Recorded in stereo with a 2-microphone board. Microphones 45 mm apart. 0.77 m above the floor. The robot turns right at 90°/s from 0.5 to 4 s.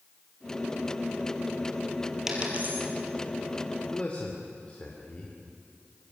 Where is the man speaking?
20° left (ahead or behind), 3 m; by 5.4 s 30° left (ahead or behind), 3 m.